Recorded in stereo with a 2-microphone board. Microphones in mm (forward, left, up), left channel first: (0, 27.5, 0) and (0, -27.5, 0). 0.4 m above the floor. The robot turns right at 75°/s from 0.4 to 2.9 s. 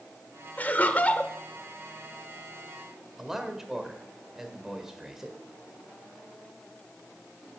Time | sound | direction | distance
0.6 | laughter | 30° left (ahead or behind) | 0.8 m
3.2 | a man speaking | 5° right (ahead or behind) | 1.5 m